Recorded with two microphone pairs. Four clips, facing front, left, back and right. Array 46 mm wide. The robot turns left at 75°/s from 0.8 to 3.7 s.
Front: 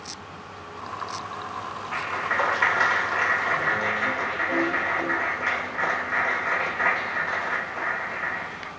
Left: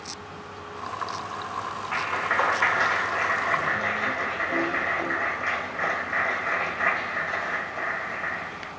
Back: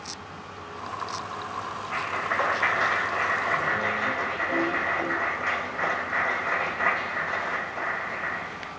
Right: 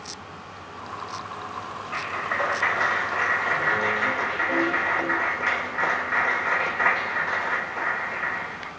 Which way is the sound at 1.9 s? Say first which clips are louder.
Left 2 dB, front 1 dB; 85° left.